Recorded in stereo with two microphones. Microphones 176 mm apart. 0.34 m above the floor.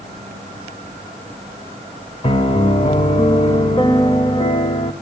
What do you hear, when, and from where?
2.2 s a piano: 30° left (ahead or behind), 1.0 m